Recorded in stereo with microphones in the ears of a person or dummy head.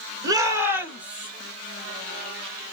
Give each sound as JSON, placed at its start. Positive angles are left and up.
{"t": 0.2, "sound": "a shout", "side_deg": -20, "distance_m": 1.9}